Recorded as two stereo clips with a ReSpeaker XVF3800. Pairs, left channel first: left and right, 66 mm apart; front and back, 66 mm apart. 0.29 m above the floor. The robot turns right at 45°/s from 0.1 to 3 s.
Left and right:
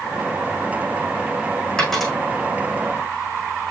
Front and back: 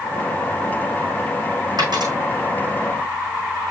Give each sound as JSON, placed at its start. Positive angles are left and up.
{"t": 1.8, "sound": "a dropped coin", "azimuth_deg": 170, "distance_m": 5.0}